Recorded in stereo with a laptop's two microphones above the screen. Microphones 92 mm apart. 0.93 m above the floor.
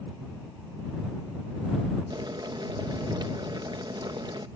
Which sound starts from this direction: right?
Boiling, at 2.1 s.